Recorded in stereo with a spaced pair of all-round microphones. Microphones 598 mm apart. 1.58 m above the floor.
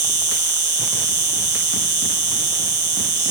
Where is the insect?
65° right (ahead or behind).